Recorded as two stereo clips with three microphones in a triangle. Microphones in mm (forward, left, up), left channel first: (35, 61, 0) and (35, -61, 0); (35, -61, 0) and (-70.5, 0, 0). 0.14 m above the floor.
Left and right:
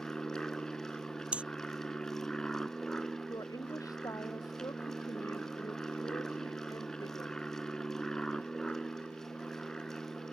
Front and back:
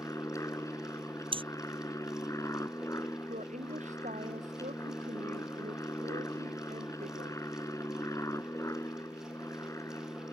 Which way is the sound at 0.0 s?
10° left.